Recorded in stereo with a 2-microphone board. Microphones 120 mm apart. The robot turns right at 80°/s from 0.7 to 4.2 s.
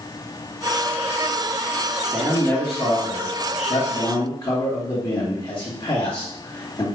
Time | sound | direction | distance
2.1 | a man speaking | 35° right | 1.5 m